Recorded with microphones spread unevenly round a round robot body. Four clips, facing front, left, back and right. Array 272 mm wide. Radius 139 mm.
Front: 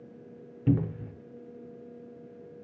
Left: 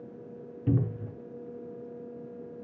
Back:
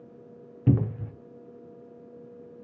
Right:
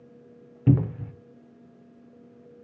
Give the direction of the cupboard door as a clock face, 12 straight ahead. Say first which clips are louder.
Right 6 dB, back 2 dB; 4 o'clock.